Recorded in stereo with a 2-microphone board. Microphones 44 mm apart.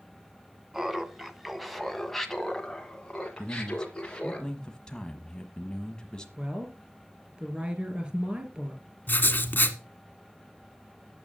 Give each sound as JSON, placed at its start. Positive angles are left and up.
{"t": 0.7, "sound": "laughter", "side_deg": -10, "distance_m": 1.8}
{"t": 3.4, "sound": "a man speaking", "side_deg": 15, "distance_m": 1.1}
{"t": 6.4, "sound": "a woman speaking", "side_deg": -25, "distance_m": 3.0}
{"t": 9.1, "sound": "writing", "side_deg": 40, "distance_m": 1.6}